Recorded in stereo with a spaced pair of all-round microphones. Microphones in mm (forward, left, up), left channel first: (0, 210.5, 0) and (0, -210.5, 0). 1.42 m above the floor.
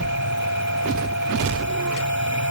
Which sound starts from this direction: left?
A machine running, at 0.0 s.